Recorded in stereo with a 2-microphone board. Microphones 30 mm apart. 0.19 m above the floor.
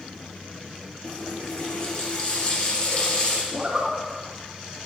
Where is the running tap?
35° left (ahead or behind), 2.5 m.